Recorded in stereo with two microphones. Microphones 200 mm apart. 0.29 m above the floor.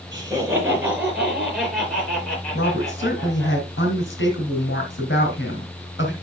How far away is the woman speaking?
About 2.5 m.